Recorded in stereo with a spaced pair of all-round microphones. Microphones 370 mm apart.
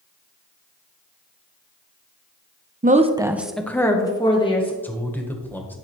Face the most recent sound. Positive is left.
turn(degrees=5)  # may be behind; listen again after turning